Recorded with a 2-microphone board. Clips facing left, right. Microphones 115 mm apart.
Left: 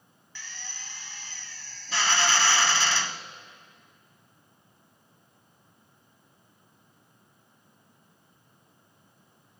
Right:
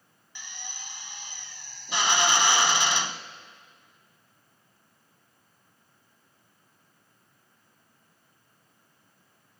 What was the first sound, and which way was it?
A drill, 20° right (ahead or behind).